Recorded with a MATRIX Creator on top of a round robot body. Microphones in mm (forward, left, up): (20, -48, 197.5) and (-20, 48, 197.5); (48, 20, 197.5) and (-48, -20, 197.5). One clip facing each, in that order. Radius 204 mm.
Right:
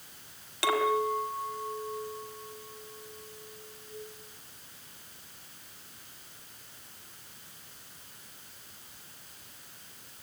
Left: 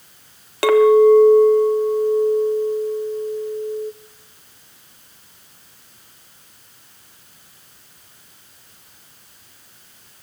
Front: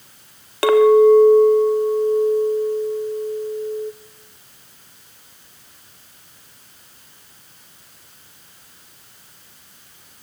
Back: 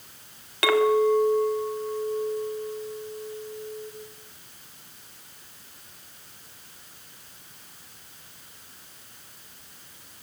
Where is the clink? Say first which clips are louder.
Left 17 dB, front 9 dB; 80° left, 1.9 m.